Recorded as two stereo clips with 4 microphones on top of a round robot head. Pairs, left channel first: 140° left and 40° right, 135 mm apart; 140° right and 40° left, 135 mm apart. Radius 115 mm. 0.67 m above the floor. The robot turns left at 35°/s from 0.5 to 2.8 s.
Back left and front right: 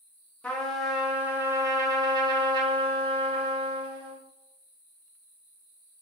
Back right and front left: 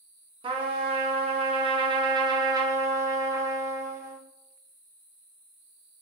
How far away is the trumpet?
About 0.8 m.